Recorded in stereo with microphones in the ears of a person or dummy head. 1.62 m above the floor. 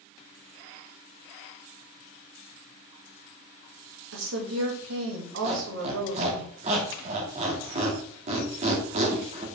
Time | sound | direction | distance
4.1 | a woman speaking | 75° right (ahead or behind) | 1.9 m
5.4 | a squeak | 40° right (ahead or behind) | 1.8 m